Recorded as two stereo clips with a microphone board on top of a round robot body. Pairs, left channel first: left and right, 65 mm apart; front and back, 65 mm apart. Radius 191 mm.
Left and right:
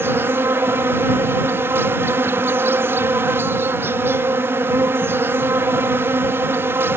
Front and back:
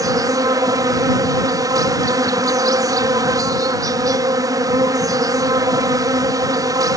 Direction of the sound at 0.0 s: 150° right.